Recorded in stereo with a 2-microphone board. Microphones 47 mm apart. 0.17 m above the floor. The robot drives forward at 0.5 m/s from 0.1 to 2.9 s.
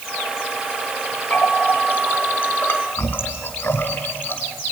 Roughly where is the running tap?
Left.